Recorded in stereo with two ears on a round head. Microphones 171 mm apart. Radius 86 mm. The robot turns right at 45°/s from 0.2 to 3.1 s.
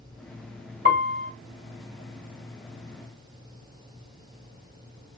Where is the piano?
50° right (ahead or behind), 1.6 m; by 1.3 s 40° right (ahead or behind), 1.6 m.